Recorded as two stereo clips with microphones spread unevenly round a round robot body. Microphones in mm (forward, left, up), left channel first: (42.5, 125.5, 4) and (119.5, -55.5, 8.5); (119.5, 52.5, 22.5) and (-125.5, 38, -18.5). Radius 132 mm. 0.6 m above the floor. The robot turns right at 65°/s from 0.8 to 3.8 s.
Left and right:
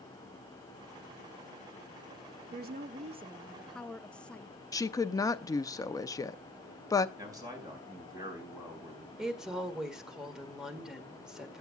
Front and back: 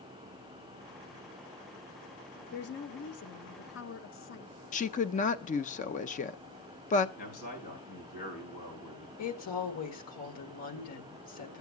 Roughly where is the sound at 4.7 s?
Ahead left.